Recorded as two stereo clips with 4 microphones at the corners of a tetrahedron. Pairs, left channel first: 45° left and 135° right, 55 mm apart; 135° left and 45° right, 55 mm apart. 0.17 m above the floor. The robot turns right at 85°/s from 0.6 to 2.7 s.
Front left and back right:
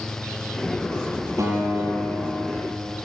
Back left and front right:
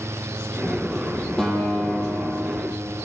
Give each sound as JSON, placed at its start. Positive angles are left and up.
{"t": 1.4, "sound": "a guitar", "azimuth_deg": -145, "distance_m": 6.0}